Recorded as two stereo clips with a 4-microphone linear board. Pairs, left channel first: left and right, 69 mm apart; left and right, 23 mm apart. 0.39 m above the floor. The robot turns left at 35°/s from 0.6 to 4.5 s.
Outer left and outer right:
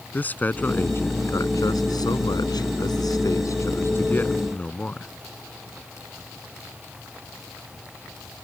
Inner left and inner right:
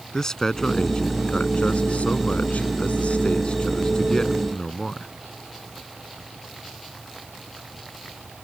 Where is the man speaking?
25° left (ahead or behind); by 5.1 s 20° left (ahead or behind).